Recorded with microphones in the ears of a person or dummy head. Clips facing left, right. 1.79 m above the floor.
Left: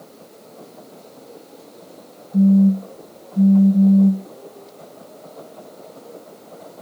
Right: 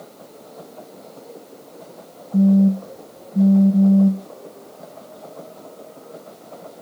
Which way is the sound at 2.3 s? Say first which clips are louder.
Left 1 dB; 60° right (ahead or behind).